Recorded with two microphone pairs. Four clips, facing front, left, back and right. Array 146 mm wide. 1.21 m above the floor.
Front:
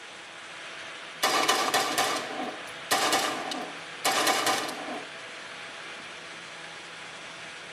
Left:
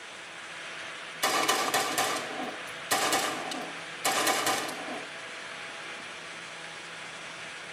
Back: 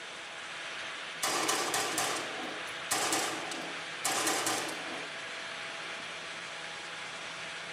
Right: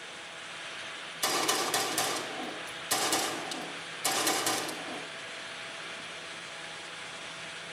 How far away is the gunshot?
About 3.5 m.